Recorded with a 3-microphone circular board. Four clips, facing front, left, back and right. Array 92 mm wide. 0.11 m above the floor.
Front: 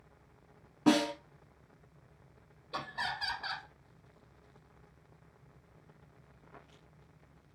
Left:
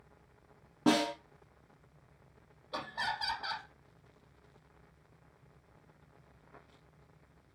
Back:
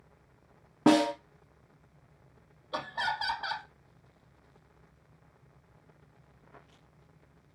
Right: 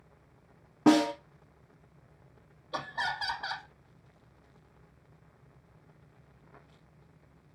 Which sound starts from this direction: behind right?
A snare drum, at 0.9 s.